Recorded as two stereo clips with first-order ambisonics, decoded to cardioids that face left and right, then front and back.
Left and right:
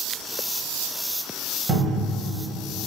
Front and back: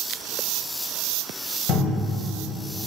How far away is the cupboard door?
About 1.1 m.